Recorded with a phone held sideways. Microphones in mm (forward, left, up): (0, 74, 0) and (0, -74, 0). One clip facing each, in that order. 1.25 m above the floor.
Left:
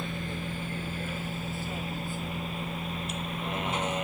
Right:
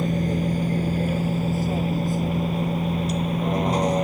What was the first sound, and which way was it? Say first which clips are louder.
A vehicle: right 12 dB; 40° right (ahead or behind).